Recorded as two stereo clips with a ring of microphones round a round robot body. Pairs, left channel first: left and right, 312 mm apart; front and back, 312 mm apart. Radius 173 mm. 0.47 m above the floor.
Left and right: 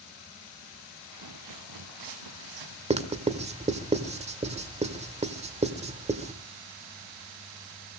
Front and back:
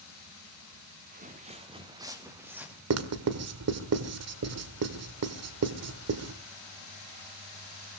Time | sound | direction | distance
1.1 | footsteps | 120° right | 2.5 m
2.9 | writing | 155° right | 1.7 m